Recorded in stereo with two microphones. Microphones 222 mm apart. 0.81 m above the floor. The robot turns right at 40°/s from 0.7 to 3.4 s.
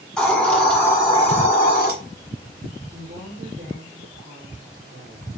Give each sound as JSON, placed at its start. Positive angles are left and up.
{"t": 0.2, "sound": "a hiss", "azimuth_deg": 5, "distance_m": 1.8}
{"t": 2.9, "sound": "a woman speaking", "side_deg": -60, "distance_m": 2.5}